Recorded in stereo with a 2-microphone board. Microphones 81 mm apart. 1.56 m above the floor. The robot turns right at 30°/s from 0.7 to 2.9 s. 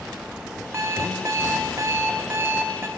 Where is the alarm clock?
115° right, 1.0 m; by 2.9 s 50° right, 1.0 m.